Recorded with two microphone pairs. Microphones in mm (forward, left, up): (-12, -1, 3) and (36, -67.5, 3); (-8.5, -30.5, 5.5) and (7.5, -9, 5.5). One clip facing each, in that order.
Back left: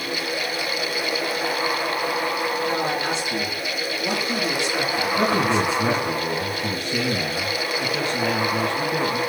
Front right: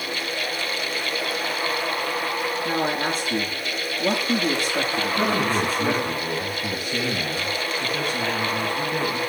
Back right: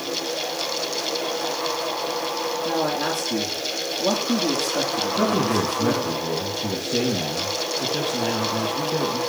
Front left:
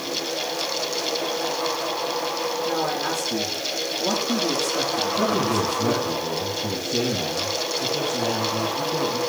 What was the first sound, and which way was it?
A man speaking, 100° right.